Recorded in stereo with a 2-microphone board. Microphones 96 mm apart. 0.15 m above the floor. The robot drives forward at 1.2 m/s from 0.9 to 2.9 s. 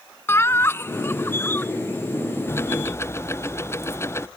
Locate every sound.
0.3 s laughter: 25° left (ahead or behind); by 1.7 s 20° left (ahead or behind)
2.5 s ticking: 25° left (ahead or behind)